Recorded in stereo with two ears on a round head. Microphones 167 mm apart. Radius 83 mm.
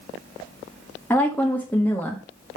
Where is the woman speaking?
10° left (ahead or behind), 1.2 m.